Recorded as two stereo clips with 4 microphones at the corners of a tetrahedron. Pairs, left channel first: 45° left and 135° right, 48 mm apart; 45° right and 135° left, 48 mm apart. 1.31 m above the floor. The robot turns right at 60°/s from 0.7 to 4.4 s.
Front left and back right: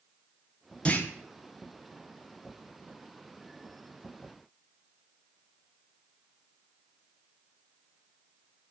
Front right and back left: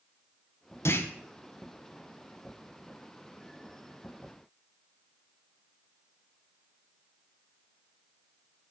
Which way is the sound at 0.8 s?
20° right.